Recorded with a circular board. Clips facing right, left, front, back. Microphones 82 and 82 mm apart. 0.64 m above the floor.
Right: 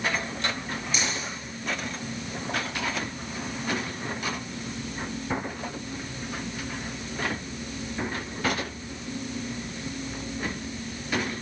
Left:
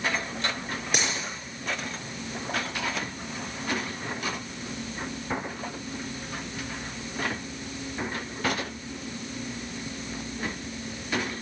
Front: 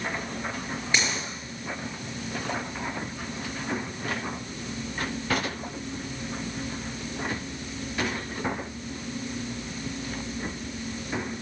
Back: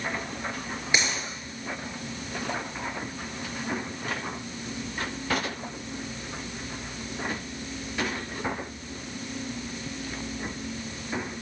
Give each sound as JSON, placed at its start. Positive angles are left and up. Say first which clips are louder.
{"t": 0.9, "sound": "a dropped coin", "louder": "left 2 dB, even", "azimuth_deg": 110, "distance_m": 5.5}